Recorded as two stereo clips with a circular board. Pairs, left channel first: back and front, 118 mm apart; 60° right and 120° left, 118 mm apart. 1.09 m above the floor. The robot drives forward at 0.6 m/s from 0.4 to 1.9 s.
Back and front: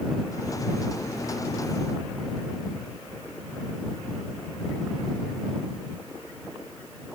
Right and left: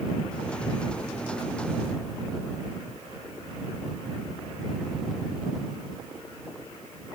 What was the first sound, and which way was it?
Only background noise.